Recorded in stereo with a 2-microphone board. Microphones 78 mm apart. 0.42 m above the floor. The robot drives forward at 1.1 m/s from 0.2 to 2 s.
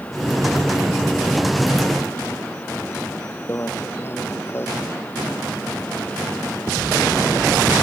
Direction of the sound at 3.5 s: 30° left (ahead or behind).